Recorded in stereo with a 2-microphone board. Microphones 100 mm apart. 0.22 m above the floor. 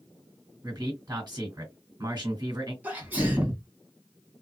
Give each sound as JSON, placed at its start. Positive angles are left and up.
{"t": 0.6, "sound": "a man speaking", "side_deg": -40, "distance_m": 1.9}
{"t": 2.8, "sound": "a sneeze", "side_deg": -20, "distance_m": 1.4}